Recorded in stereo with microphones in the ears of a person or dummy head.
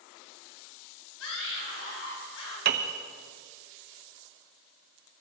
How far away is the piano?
About 1.2 m.